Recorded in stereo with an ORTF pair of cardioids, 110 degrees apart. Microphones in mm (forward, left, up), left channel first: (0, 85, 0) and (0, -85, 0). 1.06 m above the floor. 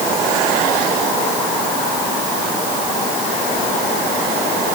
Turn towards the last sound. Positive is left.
No sound to turn to.